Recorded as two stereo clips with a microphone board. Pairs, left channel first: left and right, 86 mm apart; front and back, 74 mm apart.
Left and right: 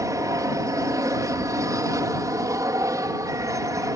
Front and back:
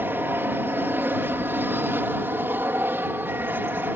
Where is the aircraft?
125° right.